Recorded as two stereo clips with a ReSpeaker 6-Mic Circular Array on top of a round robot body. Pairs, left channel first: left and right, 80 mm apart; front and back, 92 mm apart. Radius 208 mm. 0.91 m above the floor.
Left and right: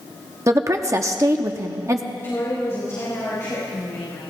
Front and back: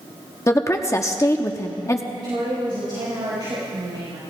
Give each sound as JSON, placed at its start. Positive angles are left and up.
{"t": 0.5, "sound": "a woman speaking", "azimuth_deg": -50, "distance_m": 1.0}
{"t": 2.1, "sound": "a woman speaking", "azimuth_deg": 150, "distance_m": 4.5}